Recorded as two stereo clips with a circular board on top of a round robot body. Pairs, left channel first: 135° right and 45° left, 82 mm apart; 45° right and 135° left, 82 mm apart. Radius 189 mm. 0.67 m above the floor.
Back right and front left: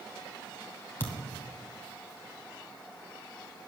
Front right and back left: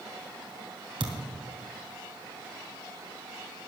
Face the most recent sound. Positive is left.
turn(degrees=160)